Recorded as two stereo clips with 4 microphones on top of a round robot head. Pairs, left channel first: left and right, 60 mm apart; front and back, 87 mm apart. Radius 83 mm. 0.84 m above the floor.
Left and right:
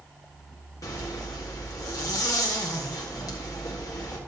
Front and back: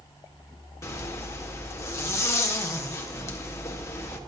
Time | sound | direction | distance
0.8 | a zipper | 55° left | 1.7 m